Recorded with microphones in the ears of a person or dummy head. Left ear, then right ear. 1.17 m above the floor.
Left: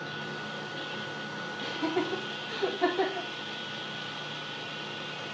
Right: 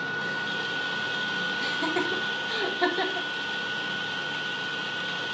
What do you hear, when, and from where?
0.0 s a machine running: 70° right (ahead or behind), 1.6 m
1.6 s laughter: 50° right (ahead or behind), 2.0 m